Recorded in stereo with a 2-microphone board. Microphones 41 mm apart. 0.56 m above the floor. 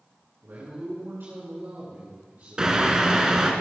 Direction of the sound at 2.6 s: 20° right (ahead or behind).